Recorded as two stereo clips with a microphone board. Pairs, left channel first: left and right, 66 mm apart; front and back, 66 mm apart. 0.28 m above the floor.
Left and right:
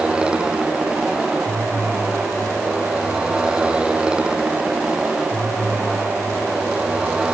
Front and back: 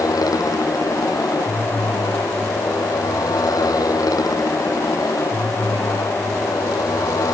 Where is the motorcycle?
15° right.